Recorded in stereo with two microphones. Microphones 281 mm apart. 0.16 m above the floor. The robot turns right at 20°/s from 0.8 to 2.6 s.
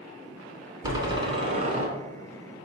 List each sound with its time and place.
0.8 s a door slam: 15° right (ahead or behind), 1.1 m; by 1.9 s 25° right (ahead or behind), 1.1 m